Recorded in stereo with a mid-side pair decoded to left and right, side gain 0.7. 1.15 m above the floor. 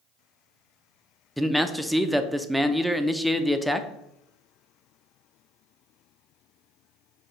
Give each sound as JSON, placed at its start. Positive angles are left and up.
{"t": 1.4, "sound": "a man speaking", "azimuth_deg": 0, "distance_m": 0.5}